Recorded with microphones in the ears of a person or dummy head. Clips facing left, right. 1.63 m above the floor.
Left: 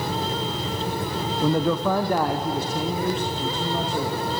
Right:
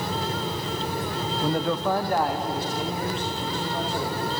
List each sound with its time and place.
1.4 s a man speaking: 85° left, 0.7 m; by 4.2 s 90° left, 3 m